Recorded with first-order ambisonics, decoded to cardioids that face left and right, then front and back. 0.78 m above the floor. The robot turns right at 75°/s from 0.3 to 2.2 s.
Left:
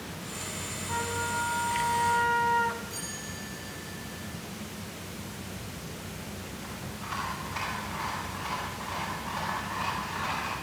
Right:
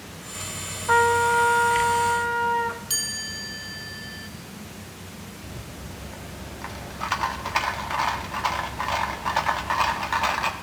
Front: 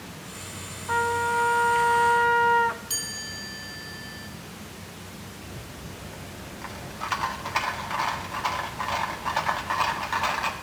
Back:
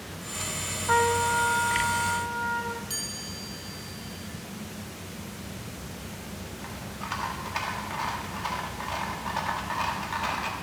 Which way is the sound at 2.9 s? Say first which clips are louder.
Right 10 dB, front 3 dB; 80° right.